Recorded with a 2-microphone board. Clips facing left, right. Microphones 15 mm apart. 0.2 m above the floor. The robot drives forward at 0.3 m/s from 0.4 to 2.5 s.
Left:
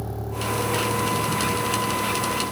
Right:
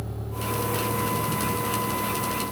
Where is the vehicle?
80° left; by 2.5 s 60° left (ahead or behind).